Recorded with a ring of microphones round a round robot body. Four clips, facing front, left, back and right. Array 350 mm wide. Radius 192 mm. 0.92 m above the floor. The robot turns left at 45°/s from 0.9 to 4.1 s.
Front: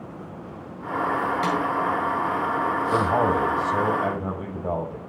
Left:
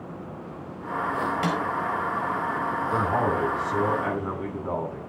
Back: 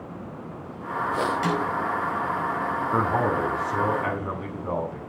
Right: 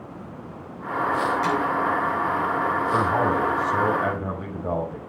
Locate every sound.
1.4 s a snare drum: 70° left, 4.5 m; by 1.6 s 60° left, 4.5 m
2.9 s a man speaking: 5° left, 6 m; by 5.0 s 45° right, 6 m